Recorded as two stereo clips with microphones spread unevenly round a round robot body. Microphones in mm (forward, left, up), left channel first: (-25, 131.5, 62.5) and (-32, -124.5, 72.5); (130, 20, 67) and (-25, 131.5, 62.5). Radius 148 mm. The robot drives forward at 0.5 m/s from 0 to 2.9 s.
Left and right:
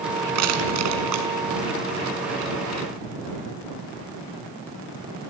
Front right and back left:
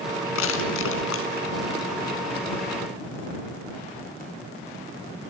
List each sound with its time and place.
0.3 s crushing: 55° right, 3.5 m; by 1.3 s 65° right, 3 m